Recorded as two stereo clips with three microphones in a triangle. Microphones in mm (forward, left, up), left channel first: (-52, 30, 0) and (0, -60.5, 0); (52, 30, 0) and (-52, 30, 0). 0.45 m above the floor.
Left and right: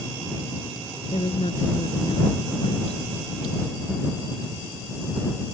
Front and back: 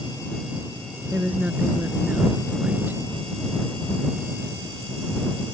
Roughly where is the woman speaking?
Left.